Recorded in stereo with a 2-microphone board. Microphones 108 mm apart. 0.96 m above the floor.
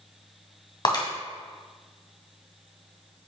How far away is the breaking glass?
About 2.5 m.